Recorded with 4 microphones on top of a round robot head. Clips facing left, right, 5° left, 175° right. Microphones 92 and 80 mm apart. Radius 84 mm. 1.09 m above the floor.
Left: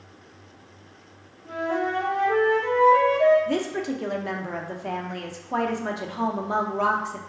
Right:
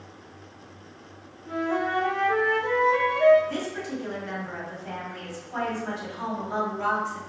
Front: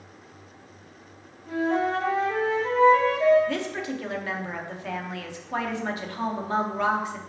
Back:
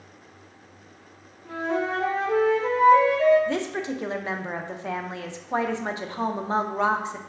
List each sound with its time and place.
1.4 s a flute: 155° left, 1.4 m
3.5 s a woman speaking: 120° left, 0.7 m